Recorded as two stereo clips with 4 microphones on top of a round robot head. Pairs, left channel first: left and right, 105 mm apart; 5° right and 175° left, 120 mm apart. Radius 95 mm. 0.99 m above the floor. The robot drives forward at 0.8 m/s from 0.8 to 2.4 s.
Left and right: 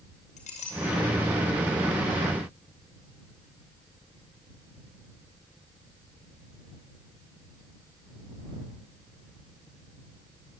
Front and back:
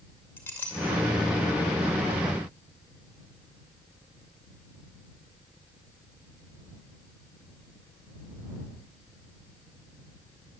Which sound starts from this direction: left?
A clink, at 0.4 s.